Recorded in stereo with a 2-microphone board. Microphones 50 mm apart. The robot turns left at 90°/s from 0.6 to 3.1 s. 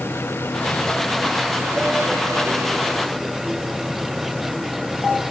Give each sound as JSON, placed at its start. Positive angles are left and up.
{"t": 0.0, "sound": "an engine running", "azimuth_deg": 50}